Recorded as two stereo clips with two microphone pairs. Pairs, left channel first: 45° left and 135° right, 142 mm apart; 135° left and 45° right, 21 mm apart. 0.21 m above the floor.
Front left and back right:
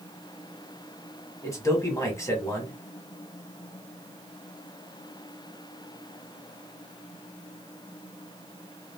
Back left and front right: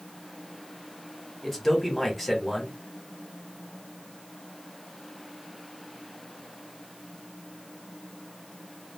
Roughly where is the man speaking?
Ahead left.